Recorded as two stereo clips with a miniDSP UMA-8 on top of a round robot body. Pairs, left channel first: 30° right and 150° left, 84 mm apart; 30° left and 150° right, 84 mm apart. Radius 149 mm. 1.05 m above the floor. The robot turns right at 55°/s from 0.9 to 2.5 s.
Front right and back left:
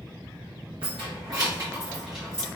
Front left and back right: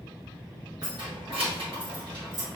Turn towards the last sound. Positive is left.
turn(degrees=-105)